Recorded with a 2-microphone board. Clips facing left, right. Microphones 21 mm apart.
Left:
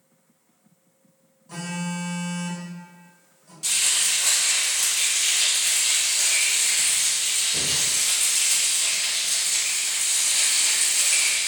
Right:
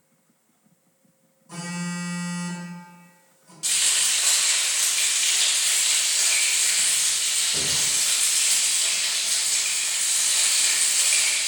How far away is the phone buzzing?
About 0.9 m.